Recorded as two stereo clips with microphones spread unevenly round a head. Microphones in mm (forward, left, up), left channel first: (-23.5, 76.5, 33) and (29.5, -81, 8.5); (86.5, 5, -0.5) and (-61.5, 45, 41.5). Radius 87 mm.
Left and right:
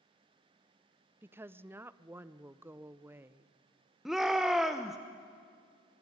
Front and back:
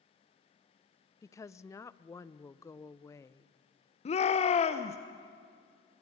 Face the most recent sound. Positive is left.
turn(degrees=10)